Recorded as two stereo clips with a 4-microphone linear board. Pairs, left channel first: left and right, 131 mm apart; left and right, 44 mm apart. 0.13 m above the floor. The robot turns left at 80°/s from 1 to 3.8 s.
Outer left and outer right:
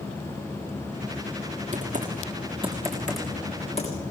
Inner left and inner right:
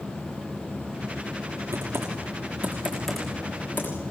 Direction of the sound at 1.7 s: 65° right (ahead or behind).